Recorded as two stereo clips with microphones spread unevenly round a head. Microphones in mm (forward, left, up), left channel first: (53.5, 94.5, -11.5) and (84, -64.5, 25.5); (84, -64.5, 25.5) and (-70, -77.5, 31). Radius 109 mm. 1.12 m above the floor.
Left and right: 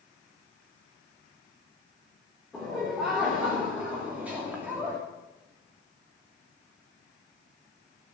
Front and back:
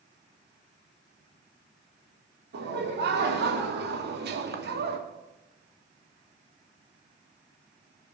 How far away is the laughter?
About 3.5 m.